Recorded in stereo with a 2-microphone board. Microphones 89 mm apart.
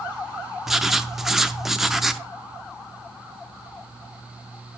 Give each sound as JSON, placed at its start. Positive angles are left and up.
{"t": 0.7, "sound": "writing", "side_deg": -5, "distance_m": 0.5}